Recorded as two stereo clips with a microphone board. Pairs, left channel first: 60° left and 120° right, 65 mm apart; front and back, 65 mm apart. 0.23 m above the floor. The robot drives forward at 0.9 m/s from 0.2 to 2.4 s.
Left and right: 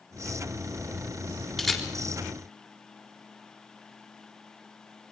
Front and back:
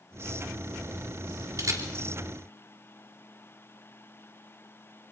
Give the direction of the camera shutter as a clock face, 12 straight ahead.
7 o'clock.